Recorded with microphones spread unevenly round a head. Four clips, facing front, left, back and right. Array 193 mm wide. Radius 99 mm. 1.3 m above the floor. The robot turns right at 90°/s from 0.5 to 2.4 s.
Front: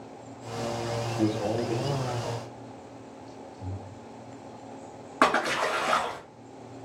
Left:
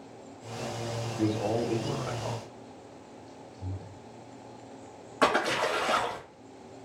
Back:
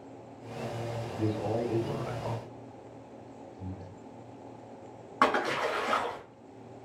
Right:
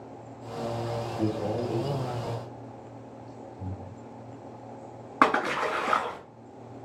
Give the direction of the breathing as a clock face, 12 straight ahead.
4 o'clock.